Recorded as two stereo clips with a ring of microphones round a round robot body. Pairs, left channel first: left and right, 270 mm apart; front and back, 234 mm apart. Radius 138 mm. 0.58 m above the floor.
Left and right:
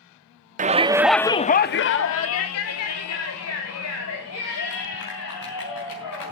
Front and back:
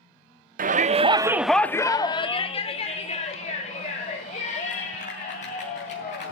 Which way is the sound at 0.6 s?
140° right.